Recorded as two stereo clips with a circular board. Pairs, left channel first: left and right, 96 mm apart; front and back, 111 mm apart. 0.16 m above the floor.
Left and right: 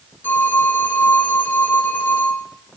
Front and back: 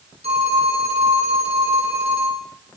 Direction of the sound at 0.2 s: 160° left.